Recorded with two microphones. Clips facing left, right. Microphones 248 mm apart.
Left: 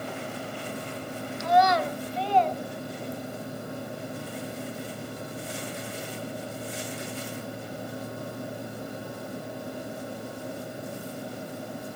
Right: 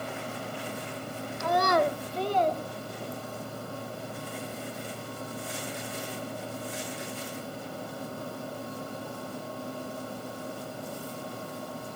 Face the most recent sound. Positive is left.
turn(degrees=-35)  # may be behind; listen again after turning